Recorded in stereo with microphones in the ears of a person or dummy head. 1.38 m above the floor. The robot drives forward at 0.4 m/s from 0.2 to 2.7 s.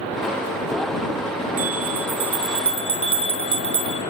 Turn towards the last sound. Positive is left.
turn(degrees=-25)  # may be behind; listen again after turning